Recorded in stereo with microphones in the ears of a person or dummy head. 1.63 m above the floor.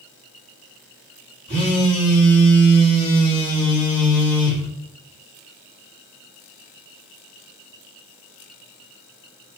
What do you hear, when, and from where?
1.5 s a phone buzzing: 35° right (ahead or behind), 1.3 m